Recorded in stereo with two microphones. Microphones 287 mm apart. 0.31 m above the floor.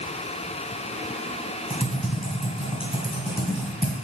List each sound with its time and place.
1.7 s typing on a keyboard: 20° right (ahead or behind), 1.6 m